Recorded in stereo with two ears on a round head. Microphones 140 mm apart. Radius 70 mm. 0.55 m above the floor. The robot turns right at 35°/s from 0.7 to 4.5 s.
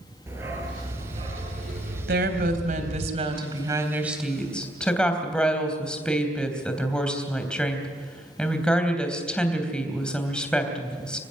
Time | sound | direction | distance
0.3 | a dog barking | 165° right | 4 m
2.1 | a woman speaking | 80° right | 3 m